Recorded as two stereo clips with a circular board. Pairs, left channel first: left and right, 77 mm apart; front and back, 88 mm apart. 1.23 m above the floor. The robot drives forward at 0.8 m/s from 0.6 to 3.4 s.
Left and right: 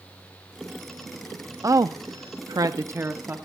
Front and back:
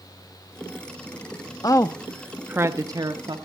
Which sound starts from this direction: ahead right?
A woman speaking, at 1.6 s.